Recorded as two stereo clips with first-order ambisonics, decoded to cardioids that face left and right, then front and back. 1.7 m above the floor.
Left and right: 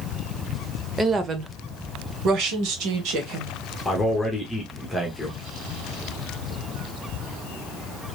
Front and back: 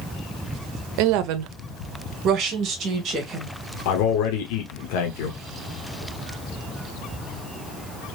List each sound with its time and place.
1.0 s a woman speaking: 170° right, 0.5 m; by 3.5 s 120° right, 1.6 m
3.9 s a man speaking: straight ahead, 0.9 m